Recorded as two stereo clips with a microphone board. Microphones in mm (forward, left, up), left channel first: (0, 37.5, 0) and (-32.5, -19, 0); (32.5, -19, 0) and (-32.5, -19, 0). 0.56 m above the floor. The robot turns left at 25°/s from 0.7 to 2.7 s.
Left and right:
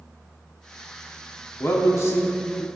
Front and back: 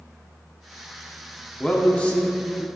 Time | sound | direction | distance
1.6 | a man speaking | 75° left | 0.7 m